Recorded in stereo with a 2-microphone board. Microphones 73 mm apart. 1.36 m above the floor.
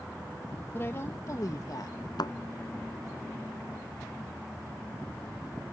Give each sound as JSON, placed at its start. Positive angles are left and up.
{"t": 0.7, "sound": "a woman speaking", "side_deg": 30}
{"t": 2.2, "sound": "a thud", "side_deg": 70}